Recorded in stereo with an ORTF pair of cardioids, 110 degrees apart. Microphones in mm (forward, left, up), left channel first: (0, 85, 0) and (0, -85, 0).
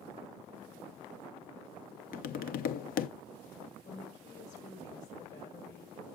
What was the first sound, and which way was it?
Tapping, 65° left.